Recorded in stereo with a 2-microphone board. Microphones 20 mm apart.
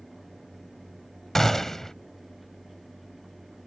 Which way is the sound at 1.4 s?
20° left (ahead or behind).